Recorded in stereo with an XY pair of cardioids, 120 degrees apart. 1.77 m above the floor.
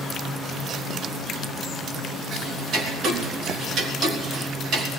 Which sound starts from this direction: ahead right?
Ticking, at 2.3 s.